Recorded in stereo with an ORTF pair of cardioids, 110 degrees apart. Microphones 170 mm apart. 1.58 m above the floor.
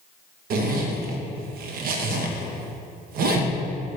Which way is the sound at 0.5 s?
60° right.